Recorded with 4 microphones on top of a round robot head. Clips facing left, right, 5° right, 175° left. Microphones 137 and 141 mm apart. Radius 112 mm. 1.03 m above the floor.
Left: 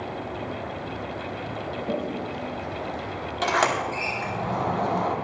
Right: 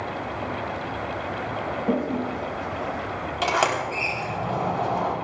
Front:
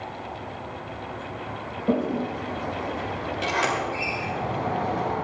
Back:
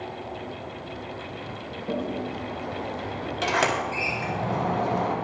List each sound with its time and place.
1.9 s a toilet flushing: 45° right, 1.2 m
3.4 s a sliding door: 170° right, 4 m